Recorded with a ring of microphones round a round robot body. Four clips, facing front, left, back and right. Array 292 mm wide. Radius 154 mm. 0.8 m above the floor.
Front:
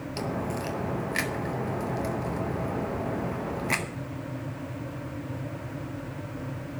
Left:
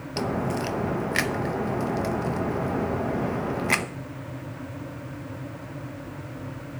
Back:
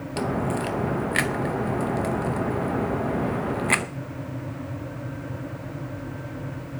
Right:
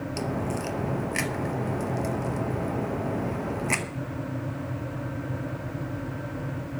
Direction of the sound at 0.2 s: 150° left.